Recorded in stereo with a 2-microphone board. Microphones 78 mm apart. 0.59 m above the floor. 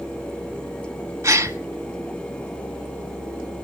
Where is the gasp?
35° right (ahead or behind), 1.2 m.